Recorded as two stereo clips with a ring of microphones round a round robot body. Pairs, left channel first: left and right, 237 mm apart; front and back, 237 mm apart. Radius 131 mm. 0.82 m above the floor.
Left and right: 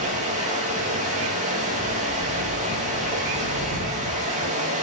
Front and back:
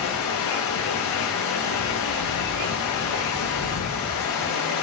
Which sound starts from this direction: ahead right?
Running water, at 0.0 s.